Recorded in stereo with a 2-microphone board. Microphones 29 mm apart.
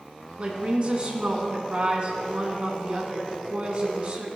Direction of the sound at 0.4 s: 45° right (ahead or behind).